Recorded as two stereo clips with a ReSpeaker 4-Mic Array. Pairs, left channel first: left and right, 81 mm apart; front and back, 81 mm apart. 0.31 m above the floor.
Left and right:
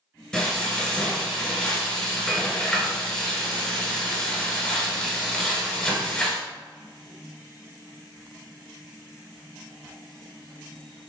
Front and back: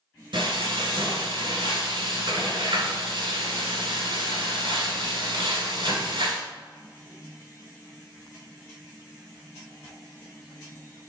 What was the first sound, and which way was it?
Frying, 170° left.